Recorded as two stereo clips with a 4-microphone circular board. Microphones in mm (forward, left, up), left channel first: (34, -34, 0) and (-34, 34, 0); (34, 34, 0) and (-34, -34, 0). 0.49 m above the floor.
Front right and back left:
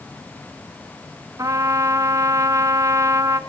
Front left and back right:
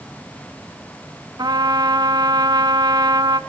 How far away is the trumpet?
About 1.0 m.